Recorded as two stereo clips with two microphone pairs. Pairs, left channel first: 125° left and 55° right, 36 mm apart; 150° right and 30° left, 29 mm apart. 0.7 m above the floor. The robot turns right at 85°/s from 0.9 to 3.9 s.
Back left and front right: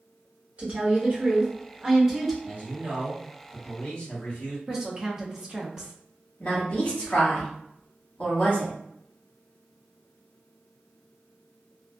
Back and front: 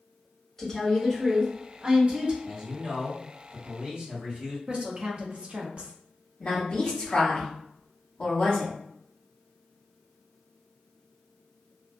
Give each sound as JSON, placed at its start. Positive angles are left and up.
{"t": 0.6, "sound": "a woman speaking", "azimuth_deg": -70, "distance_m": 1.0}
{"t": 2.4, "sound": "a man speaking", "azimuth_deg": -45, "distance_m": 1.5}
{"t": 4.7, "sound": "a woman speaking", "azimuth_deg": 20, "distance_m": 0.6}
{"t": 6.4, "sound": "a woman speaking", "azimuth_deg": 170, "distance_m": 1.2}